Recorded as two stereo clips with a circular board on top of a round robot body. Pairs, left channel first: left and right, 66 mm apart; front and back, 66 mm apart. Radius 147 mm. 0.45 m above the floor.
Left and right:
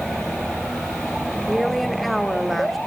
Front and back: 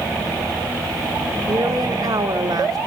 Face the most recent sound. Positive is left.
turn(degrees=180)